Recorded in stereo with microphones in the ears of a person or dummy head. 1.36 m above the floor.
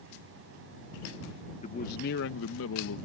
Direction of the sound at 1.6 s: 45° left (ahead or behind).